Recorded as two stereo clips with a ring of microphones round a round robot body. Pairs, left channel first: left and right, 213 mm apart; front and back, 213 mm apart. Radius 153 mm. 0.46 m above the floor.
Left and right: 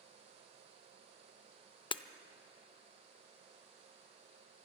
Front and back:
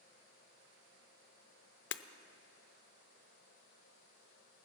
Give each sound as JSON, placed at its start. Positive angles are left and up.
{"t": 1.9, "sound": "breaking glass", "azimuth_deg": 20, "distance_m": 0.6}